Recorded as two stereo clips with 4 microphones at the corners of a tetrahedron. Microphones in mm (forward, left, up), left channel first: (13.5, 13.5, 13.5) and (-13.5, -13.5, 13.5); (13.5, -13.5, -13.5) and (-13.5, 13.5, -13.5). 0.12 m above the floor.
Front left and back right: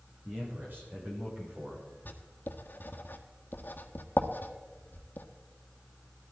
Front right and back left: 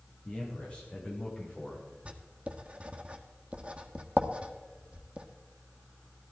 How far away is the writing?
About 1.4 m.